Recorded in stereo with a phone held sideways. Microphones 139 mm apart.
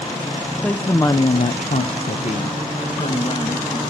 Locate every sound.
0.6 s a woman speaking: 5° left (ahead or behind), 1.2 m; by 3.8 s 40° left (ahead or behind), 3 m